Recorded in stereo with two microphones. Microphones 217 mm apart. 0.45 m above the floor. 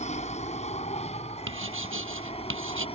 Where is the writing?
70° right (ahead or behind).